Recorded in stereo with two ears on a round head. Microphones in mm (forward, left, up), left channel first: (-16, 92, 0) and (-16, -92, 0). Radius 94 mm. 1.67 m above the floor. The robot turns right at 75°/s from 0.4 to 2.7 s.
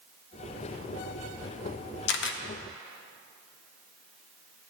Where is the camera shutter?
60° left (ahead or behind), 0.7 m.